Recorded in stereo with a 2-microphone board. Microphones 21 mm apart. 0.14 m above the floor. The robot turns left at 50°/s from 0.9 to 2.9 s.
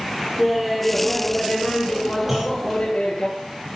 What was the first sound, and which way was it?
Laughter, straight behind.